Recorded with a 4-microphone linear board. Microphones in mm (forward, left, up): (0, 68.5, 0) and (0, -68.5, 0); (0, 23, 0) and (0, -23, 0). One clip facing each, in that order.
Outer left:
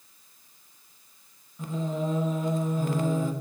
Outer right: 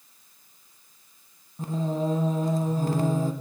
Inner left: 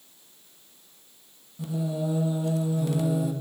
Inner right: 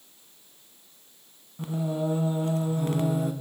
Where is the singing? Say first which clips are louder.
Outer right 3 dB, inner right 1 dB; 40° right (ahead or behind), 0.9 m.